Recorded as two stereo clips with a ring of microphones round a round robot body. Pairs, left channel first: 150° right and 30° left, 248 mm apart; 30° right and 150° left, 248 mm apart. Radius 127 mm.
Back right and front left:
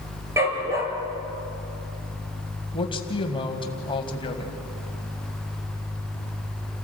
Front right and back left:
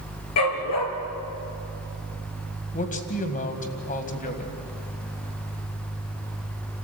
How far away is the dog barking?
About 3 m.